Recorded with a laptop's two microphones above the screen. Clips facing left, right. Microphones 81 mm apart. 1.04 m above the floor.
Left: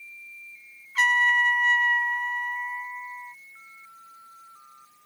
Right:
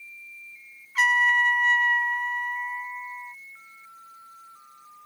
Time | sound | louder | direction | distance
0.9 | a trumpet | even | 5° right (ahead or behind) | ?